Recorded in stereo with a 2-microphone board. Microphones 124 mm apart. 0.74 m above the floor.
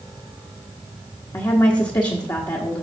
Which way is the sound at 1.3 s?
35° left (ahead or behind).